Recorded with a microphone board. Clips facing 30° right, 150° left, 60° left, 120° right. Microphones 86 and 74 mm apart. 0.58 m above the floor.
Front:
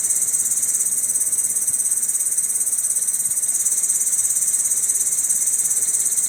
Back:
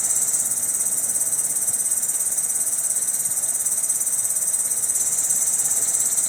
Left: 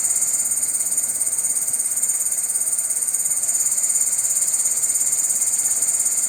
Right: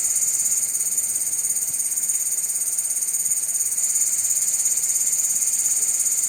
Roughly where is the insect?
Behind left.